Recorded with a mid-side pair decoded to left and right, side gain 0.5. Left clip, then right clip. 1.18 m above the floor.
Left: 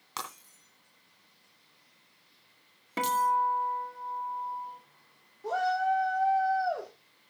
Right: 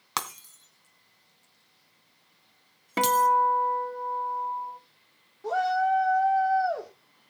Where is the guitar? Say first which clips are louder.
Right 5 dB; 35° right, 1.3 m.